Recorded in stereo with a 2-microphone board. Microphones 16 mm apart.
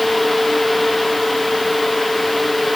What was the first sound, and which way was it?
Only background noise.